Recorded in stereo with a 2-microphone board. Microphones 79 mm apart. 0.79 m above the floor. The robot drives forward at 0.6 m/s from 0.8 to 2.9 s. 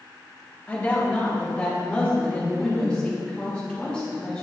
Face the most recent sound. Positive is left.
turn(degrees=10)  # may be behind; listen again after turning